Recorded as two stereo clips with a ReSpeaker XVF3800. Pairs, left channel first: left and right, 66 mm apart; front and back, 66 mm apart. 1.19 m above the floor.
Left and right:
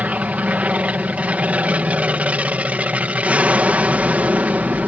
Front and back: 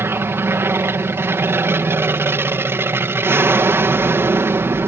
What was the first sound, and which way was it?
An aircraft, 150° right.